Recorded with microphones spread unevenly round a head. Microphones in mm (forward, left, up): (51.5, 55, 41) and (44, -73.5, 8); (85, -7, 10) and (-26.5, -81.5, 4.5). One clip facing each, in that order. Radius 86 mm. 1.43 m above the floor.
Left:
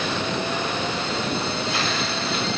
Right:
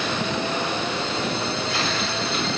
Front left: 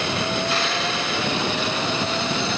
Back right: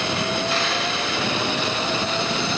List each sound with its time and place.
Only background noise.